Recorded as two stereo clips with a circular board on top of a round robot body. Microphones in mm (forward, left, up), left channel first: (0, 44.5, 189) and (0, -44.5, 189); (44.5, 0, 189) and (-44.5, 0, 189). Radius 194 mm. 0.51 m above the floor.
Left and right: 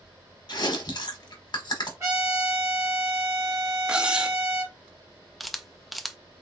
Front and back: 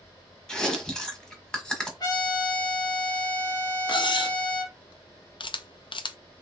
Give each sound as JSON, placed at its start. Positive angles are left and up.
{"t": 0.5, "sound": "chewing", "azimuth_deg": 80, "distance_m": 1.2}
{"t": 2.0, "sound": "a trumpet", "azimuth_deg": -35, "distance_m": 2.5}
{"t": 3.9, "sound": "cutlery clinking", "azimuth_deg": -10, "distance_m": 0.6}
{"t": 5.4, "sound": "a camera shutter", "azimuth_deg": 0, "distance_m": 0.5}